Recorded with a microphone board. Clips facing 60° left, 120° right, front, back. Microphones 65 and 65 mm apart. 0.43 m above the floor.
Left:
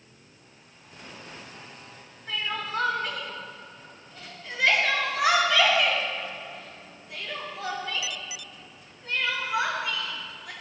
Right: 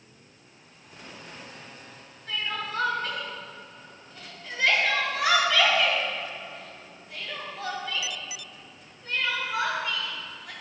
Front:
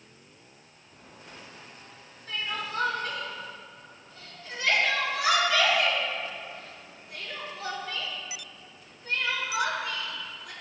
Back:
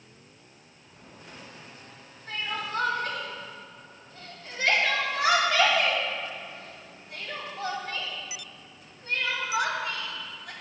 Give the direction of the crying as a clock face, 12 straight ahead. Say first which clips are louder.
Left 1 dB, back 1 dB; 7 o'clock.